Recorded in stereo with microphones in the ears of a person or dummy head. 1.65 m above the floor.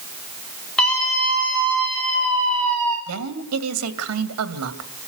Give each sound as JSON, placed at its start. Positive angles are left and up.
{"t": 0.8, "sound": "a scream", "side_deg": 5, "distance_m": 7.0}
{"t": 3.1, "sound": "a woman speaking", "side_deg": -85, "distance_m": 2.5}